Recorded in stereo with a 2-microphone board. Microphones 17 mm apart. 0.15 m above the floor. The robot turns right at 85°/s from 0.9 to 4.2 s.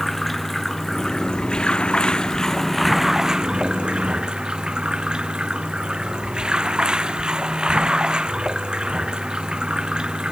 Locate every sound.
0.0 s running water: 10° left; by 10.3 s 70° right